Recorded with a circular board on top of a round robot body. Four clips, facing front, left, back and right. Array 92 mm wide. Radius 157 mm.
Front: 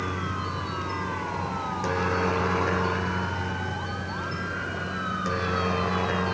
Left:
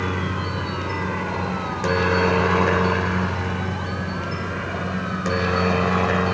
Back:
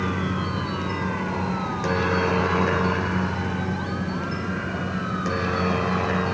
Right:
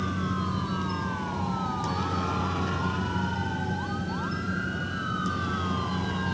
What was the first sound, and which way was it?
A helicopter, 110° left.